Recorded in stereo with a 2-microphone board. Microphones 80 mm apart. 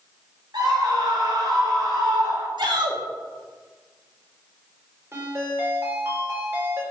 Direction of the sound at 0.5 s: 65° right (ahead or behind).